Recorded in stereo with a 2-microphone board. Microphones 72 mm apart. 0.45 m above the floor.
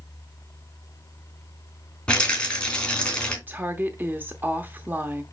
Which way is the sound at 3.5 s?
30° right (ahead or behind).